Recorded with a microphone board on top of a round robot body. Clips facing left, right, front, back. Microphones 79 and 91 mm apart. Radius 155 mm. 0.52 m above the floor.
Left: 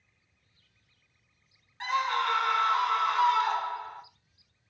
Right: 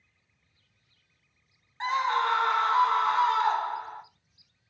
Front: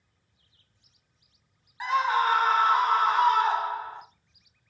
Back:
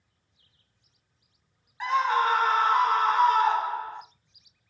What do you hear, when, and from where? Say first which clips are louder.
1.8 s a scream: right 2 dB, even; 85° right, 1.1 m